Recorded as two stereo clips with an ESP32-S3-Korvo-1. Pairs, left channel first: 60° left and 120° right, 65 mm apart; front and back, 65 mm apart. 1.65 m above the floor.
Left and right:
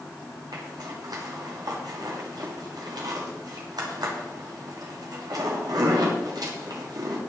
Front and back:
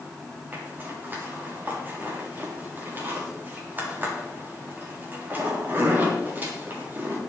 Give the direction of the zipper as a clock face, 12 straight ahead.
4 o'clock.